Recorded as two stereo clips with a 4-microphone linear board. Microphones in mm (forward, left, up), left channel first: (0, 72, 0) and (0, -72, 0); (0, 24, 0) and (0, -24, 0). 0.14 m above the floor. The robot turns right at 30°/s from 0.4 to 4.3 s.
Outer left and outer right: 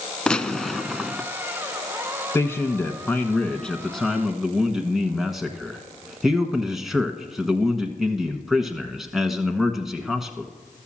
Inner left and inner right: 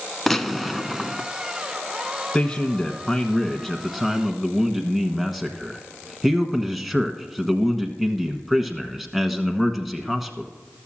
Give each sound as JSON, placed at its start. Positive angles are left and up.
{"t": 0.3, "sound": "a gunshot", "side_deg": 5, "distance_m": 0.6}
{"t": 2.3, "sound": "a man speaking", "side_deg": 20, "distance_m": 1.1}